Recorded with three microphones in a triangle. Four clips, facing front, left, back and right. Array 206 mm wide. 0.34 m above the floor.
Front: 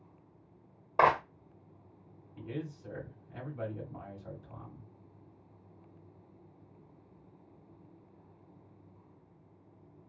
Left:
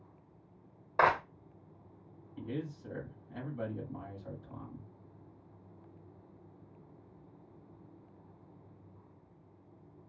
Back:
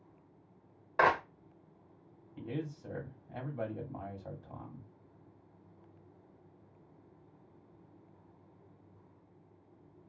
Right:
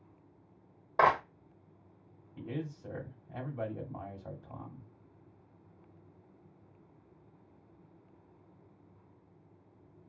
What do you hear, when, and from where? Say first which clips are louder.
1.0 s a clap: right 2 dB, front 2 dB; 15° right, 0.6 m
2.4 s a man speaking: even, back 1 dB; 125° right, 1.2 m